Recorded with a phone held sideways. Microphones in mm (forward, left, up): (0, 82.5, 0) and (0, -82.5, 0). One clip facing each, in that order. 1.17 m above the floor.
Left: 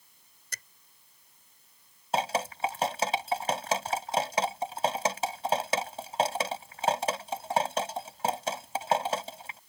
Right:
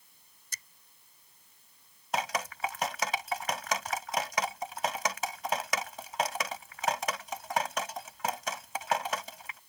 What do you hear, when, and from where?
0.5 s a finger snap: 70° left (ahead or behind)
2.1 s dripping: 30° left (ahead or behind)